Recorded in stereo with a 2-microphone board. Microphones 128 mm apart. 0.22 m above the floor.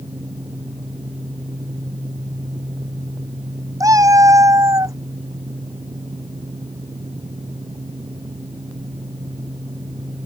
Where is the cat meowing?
25° right (ahead or behind).